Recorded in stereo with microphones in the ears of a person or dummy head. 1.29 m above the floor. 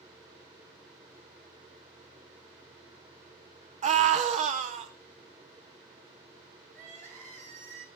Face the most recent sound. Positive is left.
turn(degrees=-45)  # may be behind; listen again after turning